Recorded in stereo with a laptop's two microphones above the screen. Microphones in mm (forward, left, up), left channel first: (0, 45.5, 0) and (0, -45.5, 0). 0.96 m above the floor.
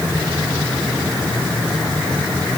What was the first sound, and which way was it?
Only background noise.